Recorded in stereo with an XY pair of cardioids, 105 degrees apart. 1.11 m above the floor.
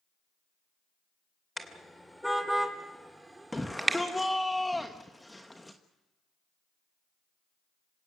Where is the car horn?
5° left, 2.5 m; by 4.0 s 25° right, 1.8 m.